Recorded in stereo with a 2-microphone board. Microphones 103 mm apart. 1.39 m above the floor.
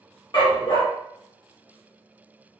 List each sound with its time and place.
0.3 s a dog barking: 50° left (ahead or behind), 1.3 m